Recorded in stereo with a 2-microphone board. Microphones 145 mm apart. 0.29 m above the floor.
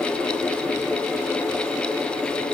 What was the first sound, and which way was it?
Only background noise.